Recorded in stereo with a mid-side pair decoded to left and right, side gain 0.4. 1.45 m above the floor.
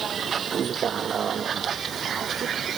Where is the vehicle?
55° right; by 2.8 s 60° right.